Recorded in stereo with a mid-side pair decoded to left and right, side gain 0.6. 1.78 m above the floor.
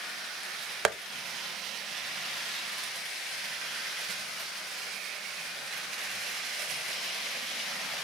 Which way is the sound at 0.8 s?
45° right.